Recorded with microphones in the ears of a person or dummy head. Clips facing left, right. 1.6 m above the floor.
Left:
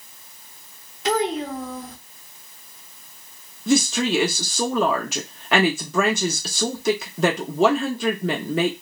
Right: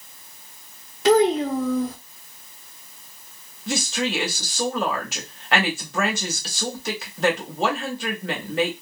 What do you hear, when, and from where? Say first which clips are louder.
1.1 s a child speaking: right 6 dB; 50° right (ahead or behind), 0.6 m
3.7 s a woman speaking: left 6 dB; 90° left, 0.8 m